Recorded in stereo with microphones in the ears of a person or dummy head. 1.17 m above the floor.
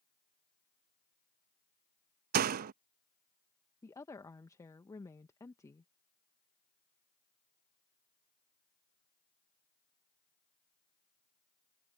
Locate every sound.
2.3 s a door slam: 50° right (ahead or behind)
3.8 s a woman speaking: 10° left (ahead or behind)